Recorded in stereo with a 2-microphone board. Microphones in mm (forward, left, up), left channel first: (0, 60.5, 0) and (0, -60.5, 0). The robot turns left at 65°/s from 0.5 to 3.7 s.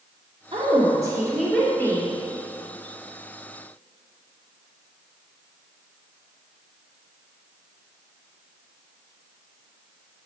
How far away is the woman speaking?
About 2.5 m.